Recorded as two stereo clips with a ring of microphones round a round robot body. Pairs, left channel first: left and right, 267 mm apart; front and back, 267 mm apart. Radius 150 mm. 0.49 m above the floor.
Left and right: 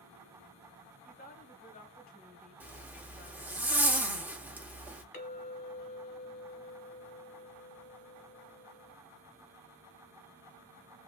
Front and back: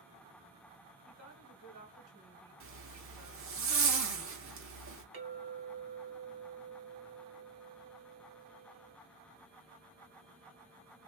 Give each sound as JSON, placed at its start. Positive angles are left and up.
{"t": 1.1, "sound": "a woman speaking", "azimuth_deg": 140, "distance_m": 2.0}
{"t": 2.6, "sound": "a zipper", "azimuth_deg": -170, "distance_m": 1.5}
{"t": 5.1, "sound": "a clink", "azimuth_deg": 135, "distance_m": 1.9}